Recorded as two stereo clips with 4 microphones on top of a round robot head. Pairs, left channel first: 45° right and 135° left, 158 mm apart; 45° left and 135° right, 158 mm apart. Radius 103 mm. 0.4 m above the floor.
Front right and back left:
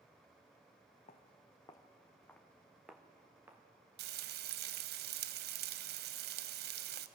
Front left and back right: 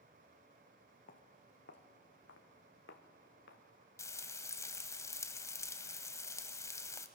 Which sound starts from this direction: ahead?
Footsteps, at 1.1 s.